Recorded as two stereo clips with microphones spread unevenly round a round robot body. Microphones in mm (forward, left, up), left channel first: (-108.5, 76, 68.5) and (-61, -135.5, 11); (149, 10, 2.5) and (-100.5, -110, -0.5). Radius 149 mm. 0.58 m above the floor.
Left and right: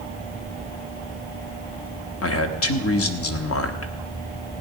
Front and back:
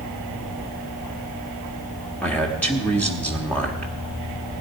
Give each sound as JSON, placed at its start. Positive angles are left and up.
{"t": 2.2, "sound": "a man speaking", "azimuth_deg": 110, "distance_m": 1.2}